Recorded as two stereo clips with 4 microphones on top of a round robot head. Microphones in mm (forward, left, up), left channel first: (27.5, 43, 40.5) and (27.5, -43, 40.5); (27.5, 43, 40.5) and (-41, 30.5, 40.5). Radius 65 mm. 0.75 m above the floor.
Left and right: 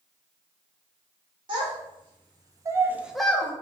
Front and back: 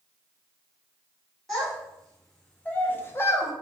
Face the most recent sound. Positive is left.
turn(degrees=40)